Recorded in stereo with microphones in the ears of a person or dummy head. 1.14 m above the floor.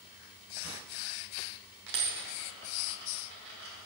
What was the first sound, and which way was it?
A dropped coin, 65° right (ahead or behind).